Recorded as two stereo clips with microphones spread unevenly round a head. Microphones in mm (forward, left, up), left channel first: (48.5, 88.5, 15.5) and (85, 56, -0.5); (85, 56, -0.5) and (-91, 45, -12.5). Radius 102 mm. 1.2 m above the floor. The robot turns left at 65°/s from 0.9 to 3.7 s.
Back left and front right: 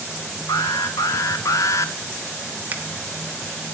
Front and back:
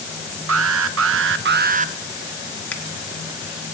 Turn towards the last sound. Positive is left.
turn(degrees=-145)